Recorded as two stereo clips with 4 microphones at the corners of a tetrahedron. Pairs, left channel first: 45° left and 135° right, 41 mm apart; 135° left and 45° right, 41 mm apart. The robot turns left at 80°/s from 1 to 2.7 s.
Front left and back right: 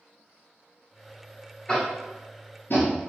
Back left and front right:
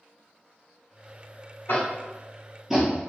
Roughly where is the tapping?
Behind left.